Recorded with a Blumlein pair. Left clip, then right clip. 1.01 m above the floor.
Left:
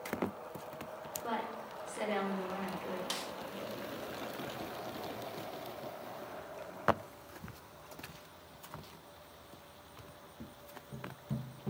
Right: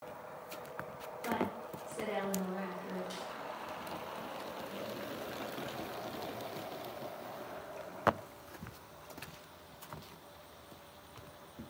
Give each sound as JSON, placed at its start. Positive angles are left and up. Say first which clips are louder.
{"t": 1.2, "sound": "a woman speaking", "louder": "right 2 dB", "azimuth_deg": 15, "distance_m": 3.5}
{"t": 3.1, "sound": "a snare drum", "louder": "left 4 dB", "azimuth_deg": 35, "distance_m": 0.7}